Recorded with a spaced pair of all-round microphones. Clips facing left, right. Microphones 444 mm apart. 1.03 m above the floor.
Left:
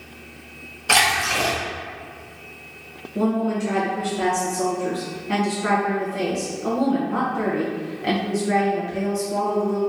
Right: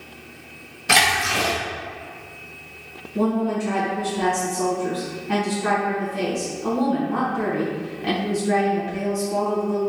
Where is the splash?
40° right (ahead or behind), 1.0 m.